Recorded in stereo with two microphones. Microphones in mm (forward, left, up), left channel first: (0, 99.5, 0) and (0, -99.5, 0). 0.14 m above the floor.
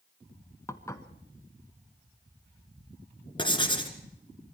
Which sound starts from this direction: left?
Writing, at 3.4 s.